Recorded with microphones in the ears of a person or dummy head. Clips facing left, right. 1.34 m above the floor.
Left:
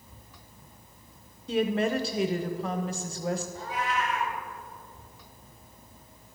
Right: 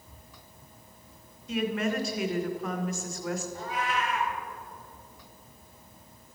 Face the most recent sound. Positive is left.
turn(degrees=-50)  # may be behind; listen again after turning